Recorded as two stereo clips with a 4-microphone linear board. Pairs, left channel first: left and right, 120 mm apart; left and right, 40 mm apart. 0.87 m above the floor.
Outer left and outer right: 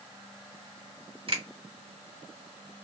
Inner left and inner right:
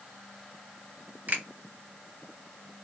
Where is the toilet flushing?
I don't hear a toilet flushing.